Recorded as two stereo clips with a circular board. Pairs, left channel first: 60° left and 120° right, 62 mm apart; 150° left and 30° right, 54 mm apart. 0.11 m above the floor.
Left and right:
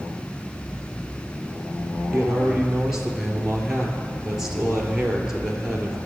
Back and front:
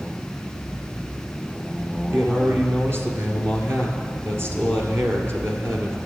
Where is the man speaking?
45° right, 2 m.